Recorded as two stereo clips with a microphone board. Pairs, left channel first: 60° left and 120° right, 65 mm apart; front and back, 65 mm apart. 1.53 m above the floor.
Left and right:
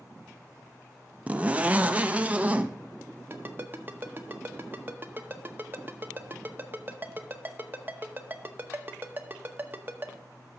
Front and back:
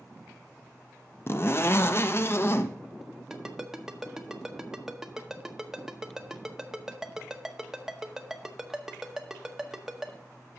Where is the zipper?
50° right, 0.6 m.